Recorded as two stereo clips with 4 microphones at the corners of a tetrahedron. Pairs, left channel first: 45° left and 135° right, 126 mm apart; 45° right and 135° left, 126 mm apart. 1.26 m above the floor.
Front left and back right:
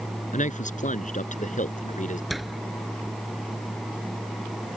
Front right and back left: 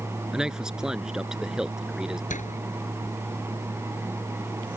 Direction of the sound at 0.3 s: 50° left.